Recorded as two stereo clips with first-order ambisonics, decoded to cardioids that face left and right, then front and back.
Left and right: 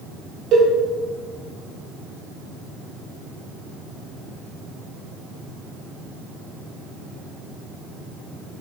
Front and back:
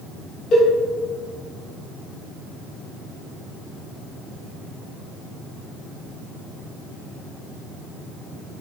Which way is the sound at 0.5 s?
55° right.